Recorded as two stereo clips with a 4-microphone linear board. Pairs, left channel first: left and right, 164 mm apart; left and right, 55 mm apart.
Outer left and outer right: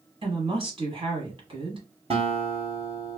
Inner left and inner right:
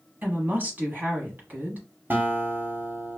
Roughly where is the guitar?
Right.